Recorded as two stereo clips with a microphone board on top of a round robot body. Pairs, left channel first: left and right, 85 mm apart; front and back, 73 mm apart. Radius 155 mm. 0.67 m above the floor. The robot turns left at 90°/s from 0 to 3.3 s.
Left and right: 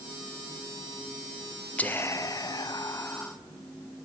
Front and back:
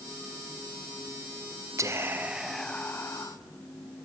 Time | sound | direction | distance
1.8 | whispering | 160° left | 0.6 m